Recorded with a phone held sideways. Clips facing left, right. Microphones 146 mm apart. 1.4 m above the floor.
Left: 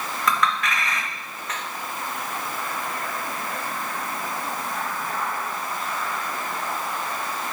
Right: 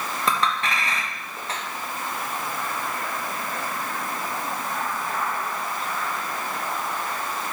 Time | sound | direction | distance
0.3 | a clink | 30° right (ahead or behind) | 1.1 m